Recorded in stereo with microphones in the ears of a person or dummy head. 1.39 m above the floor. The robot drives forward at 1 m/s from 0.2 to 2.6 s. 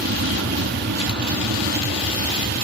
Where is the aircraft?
55° right (ahead or behind); by 2.6 s 50° right (ahead or behind).